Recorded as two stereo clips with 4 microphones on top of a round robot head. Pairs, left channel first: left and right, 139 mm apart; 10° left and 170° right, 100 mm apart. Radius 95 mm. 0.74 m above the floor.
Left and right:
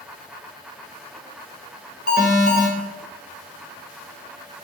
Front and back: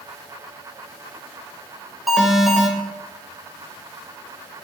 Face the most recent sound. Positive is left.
turn(degrees=100)